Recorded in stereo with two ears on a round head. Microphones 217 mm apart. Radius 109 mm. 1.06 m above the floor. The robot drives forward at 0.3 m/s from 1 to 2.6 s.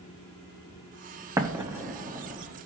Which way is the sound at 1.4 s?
15° right (ahead or behind).